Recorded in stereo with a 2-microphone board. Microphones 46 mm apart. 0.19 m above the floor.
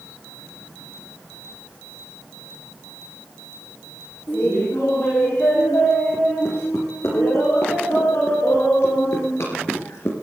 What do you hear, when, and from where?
4.3 s laughter: 75° left (ahead or behind), 7 m; by 10.1 s 65° left (ahead or behind), 3 m